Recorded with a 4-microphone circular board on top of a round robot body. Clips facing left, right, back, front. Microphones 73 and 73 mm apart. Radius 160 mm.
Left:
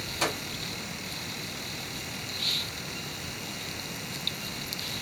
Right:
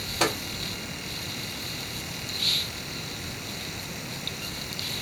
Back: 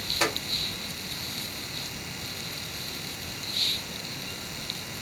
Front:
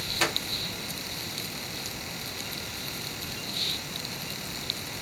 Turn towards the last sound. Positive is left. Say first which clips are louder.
# right 4 dB, back 1 dB
turn(degrees=-105)